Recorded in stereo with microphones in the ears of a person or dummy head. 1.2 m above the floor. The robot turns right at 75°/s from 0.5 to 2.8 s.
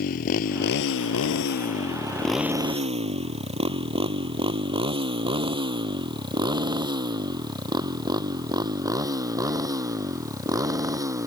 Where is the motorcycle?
60° left (ahead or behind); by 11.3 s 25° right (ahead or behind).